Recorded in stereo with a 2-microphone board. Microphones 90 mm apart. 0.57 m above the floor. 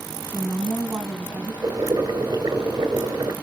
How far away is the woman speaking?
About 4.5 m.